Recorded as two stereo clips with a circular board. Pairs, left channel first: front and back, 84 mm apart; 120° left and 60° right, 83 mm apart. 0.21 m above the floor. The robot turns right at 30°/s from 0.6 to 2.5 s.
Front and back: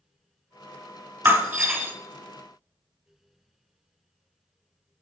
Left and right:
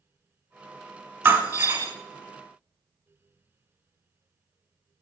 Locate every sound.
1.2 s breaking glass: 125° right, 1.1 m; by 1.9 s 105° right, 1.1 m